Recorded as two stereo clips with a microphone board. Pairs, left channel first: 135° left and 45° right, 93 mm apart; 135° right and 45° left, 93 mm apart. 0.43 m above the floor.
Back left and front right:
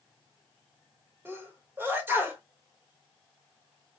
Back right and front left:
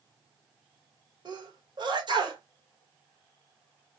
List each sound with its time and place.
1.2 s a sneeze: 20° left, 1.5 m